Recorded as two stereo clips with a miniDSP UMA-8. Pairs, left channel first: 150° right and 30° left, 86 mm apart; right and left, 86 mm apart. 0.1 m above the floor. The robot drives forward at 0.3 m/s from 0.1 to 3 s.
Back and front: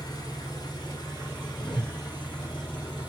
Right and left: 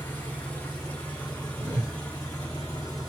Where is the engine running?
155° right, 1.1 m; by 3.1 s 165° right, 1.8 m.